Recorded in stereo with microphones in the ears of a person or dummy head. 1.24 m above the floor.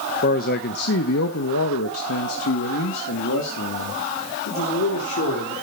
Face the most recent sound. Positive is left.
turn(degrees=65)  # may be behind; listen again after turning